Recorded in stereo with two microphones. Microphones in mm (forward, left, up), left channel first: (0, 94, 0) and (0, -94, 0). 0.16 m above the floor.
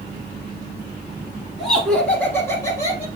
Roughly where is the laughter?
Centre.